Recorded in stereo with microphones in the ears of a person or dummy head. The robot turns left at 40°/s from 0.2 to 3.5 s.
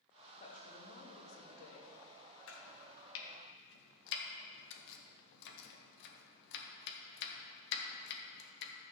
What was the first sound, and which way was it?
A woman speaking, 145° left.